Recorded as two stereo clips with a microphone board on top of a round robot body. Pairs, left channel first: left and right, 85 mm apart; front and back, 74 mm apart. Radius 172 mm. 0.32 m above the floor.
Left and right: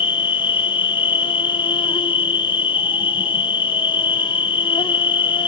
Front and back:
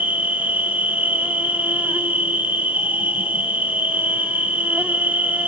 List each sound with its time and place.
0.0 s an insect: 110° left, 0.8 m